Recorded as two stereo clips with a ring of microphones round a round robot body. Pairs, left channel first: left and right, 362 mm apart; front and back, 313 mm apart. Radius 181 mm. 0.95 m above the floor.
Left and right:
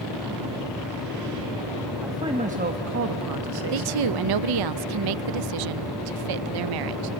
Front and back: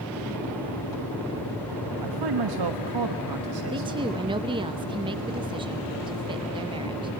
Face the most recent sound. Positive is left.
turn(degrees=-105)